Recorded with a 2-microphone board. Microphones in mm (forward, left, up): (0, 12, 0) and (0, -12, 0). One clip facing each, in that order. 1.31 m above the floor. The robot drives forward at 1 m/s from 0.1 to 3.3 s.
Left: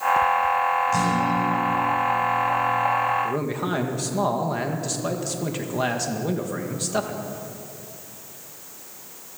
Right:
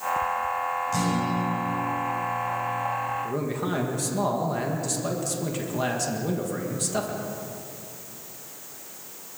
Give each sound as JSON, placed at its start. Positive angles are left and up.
{"t": 0.9, "sound": "a guitar", "side_deg": 5, "distance_m": 4.5}
{"t": 3.2, "sound": "a man speaking", "side_deg": 15, "distance_m": 1.9}